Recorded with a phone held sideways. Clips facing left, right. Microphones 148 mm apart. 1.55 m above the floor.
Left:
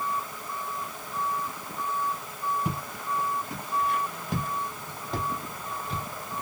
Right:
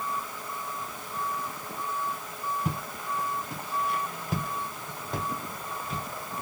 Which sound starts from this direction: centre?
Footsteps, at 2.6 s.